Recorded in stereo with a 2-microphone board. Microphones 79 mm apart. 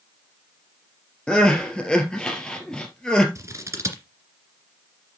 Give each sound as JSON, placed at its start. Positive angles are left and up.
{"t": 1.3, "sound": "crying", "side_deg": 10, "distance_m": 2.0}
{"t": 3.4, "sound": "scissors", "side_deg": -40, "distance_m": 2.0}